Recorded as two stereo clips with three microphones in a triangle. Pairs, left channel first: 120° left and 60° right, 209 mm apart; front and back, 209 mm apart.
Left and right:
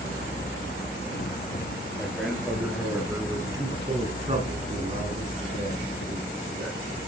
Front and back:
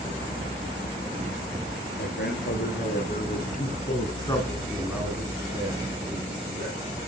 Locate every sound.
2.0 s a man speaking: 30° left, 3.5 m; by 6.8 s 120° right, 4 m